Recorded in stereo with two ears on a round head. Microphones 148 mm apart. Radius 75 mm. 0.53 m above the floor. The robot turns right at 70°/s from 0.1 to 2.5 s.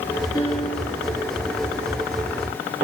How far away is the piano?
About 7.5 m.